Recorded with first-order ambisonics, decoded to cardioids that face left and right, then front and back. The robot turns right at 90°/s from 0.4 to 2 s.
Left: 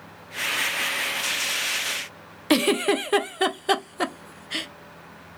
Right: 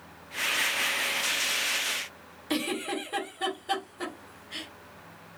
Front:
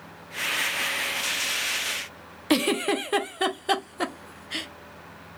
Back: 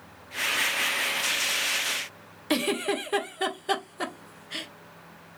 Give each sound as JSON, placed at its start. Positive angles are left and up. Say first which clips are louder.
{"t": 2.5, "sound": "a giggle", "louder": "left 10 dB, front 3 dB", "azimuth_deg": 75, "distance_m": 0.6}